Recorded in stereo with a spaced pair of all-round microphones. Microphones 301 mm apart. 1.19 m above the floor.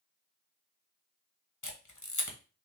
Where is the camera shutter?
70° left (ahead or behind), 1.1 m.